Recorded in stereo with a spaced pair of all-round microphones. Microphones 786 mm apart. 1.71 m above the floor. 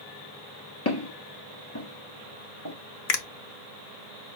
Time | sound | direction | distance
0.8 | footsteps | 20° left (ahead or behind) | 1.8 m
3.1 | a finger snap | 55° left (ahead or behind) | 0.7 m